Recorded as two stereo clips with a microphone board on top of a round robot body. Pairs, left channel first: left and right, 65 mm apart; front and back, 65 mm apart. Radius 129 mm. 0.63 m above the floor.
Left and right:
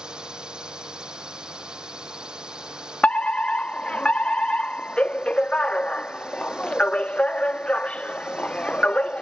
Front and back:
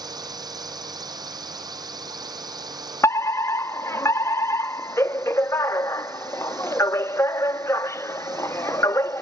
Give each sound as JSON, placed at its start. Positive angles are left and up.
{"t": 0.0, "sound": "a drone", "azimuth_deg": -170}
{"t": 3.0, "sound": "a fire alarm", "azimuth_deg": 25}